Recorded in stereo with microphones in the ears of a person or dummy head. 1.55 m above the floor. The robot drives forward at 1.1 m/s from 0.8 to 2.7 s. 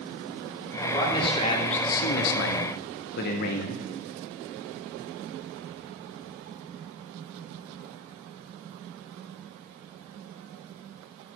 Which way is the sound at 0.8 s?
20° left (ahead or behind).